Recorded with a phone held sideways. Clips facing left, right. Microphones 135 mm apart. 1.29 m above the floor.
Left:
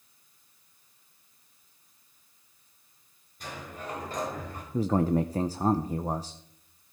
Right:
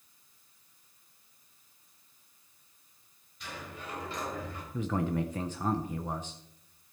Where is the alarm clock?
I don't hear an alarm clock.